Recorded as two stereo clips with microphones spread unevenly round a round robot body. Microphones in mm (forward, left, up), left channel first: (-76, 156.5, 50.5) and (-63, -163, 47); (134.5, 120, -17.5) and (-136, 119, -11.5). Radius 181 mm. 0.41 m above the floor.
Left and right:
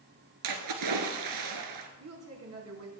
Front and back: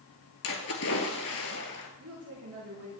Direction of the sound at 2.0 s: 125° right.